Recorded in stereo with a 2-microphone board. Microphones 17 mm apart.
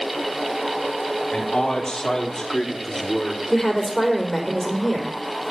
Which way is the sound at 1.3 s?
50° left (ahead or behind).